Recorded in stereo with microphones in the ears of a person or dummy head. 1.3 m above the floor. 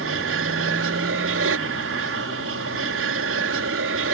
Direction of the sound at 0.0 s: 55° right (ahead or behind).